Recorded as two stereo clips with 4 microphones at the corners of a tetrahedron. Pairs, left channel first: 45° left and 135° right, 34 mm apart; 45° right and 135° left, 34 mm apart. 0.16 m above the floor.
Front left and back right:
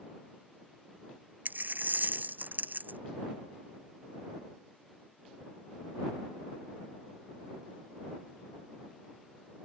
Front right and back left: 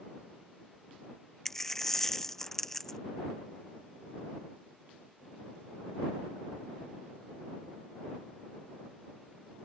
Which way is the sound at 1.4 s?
125° right.